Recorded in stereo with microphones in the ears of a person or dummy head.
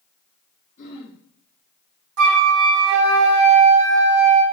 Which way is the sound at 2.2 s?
70° right (ahead or behind).